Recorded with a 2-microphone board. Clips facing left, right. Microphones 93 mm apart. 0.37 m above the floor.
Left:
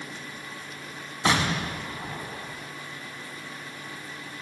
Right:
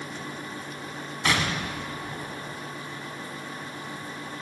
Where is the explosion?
30° left (ahead or behind), 0.8 m.